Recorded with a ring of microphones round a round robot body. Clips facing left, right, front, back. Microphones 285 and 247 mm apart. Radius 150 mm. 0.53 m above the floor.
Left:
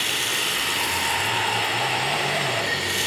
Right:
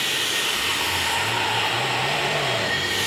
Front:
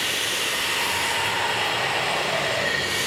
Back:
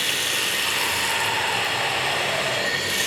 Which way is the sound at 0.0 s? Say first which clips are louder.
Right 1 dB, even; 135° left.